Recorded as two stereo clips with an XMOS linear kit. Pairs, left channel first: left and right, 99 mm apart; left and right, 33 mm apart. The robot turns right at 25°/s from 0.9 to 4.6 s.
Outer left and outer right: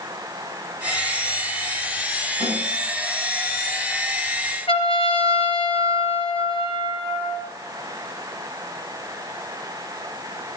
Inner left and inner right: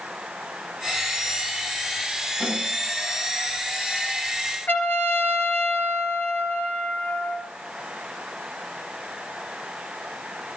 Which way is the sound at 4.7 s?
70° left (ahead or behind).